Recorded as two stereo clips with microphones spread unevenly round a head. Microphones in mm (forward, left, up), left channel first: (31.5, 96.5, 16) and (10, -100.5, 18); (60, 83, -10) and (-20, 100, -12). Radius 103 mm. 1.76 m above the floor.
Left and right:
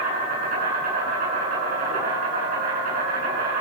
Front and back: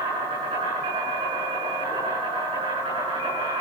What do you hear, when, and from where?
0.0 s an insect: 145° right, 9.5 m